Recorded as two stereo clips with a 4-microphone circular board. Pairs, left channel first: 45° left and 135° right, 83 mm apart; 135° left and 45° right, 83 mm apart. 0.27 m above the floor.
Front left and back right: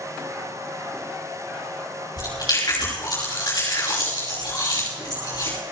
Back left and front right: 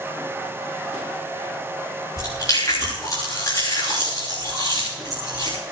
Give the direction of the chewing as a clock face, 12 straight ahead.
9 o'clock.